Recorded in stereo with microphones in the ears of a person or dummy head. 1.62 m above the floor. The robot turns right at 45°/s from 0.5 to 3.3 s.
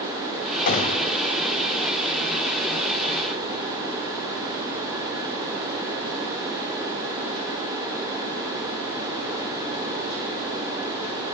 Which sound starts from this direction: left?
A gunshot, at 0.7 s.